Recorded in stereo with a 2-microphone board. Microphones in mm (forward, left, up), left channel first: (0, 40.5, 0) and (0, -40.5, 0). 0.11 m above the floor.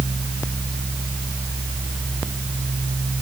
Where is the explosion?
No explosion in this recording.